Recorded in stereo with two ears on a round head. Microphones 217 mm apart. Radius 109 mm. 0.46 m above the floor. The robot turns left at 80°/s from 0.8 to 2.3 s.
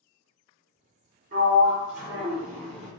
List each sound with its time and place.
1.3 s a sliding door: 105° right, 1.3 m; by 2.9 s 175° left, 1.3 m